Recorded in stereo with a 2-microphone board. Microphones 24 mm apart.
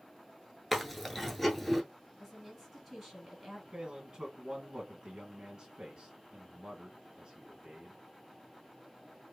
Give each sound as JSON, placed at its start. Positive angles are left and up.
{"t": 0.7, "sound": "chewing", "side_deg": 5, "distance_m": 0.7}
{"t": 2.2, "sound": "a woman speaking", "side_deg": 0, "distance_m": 2.0}
{"t": 3.7, "sound": "a man speaking", "side_deg": -40, "distance_m": 1.3}